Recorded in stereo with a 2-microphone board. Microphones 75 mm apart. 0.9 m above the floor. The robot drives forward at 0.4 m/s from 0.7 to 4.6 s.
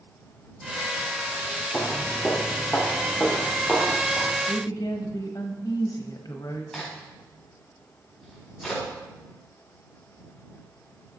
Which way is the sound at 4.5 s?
55° left (ahead or behind).